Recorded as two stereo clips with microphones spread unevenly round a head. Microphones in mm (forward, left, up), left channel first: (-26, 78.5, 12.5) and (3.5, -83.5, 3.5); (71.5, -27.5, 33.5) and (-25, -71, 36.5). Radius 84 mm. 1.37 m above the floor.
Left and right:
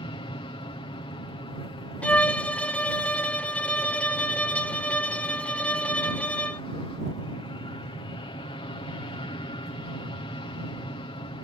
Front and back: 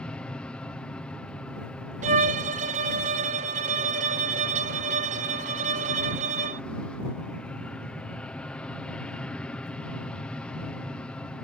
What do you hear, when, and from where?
0.0 s an aircraft: 90° left
2.0 s a violin: 175° right